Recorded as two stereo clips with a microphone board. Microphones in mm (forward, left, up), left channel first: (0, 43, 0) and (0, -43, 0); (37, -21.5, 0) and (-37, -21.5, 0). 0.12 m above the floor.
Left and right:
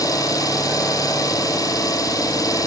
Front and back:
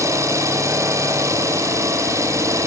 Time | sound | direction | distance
0.0 | an engine running | 135° left | 2.5 m